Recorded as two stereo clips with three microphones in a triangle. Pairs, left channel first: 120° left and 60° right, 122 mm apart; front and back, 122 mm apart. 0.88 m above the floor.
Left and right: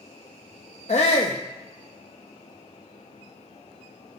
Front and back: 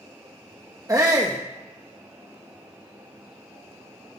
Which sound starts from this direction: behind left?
A shout, at 0.9 s.